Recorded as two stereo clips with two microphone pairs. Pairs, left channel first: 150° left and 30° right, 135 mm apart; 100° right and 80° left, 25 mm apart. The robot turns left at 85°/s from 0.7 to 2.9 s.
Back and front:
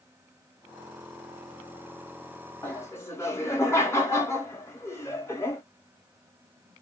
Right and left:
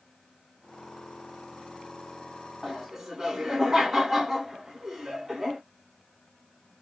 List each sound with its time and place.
2.6 s laughter: 160° left, 1.1 m; by 5.6 s 135° left, 1.1 m